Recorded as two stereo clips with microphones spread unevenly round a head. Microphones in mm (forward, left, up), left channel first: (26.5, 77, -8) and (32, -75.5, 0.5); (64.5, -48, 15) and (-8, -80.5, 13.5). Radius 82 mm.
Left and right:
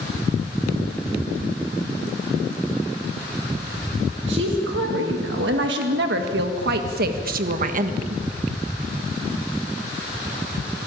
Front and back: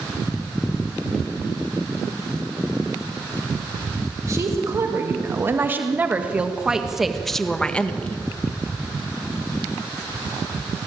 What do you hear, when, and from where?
4.3 s a woman speaking: 110° right, 2.5 m; by 8.2 s 45° right, 1.6 m